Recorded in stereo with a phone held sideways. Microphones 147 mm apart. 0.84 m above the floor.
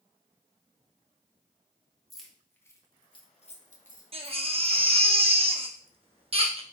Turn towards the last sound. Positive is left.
turn(degrees=-40)  # may be behind; listen again after turning